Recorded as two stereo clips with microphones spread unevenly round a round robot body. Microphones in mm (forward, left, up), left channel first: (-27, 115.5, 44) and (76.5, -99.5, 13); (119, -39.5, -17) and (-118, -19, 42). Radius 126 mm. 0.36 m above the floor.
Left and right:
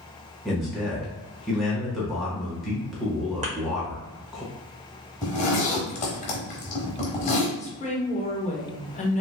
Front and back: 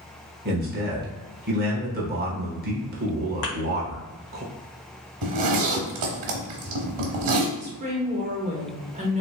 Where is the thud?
Straight ahead, 1.2 m.